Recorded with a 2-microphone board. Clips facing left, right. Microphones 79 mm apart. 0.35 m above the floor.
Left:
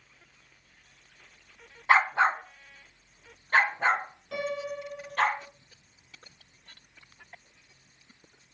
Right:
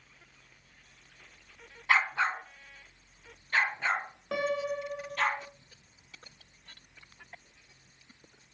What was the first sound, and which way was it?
A dog barking, 30° left (ahead or behind).